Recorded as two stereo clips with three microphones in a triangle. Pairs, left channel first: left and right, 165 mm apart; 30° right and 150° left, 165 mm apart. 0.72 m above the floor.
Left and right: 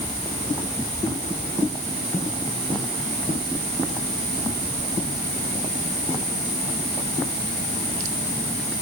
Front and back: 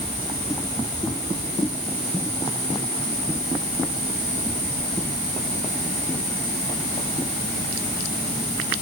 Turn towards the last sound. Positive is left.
No sound to turn to.